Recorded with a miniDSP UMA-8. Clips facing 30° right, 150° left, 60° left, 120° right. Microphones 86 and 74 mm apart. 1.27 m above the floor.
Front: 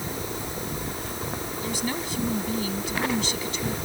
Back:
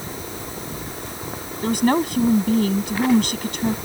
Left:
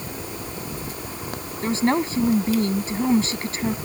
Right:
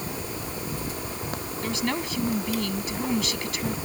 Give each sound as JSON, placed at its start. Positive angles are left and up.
{"t": 1.6, "sound": "a woman speaking", "azimuth_deg": 115}